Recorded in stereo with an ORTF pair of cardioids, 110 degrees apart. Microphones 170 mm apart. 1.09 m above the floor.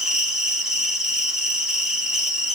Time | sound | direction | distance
0.0 | an insect | 5° right | 2.5 m